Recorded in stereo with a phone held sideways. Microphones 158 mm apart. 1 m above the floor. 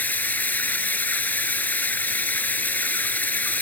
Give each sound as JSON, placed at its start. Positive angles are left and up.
{"t": 0.0, "sound": "running water", "side_deg": 10}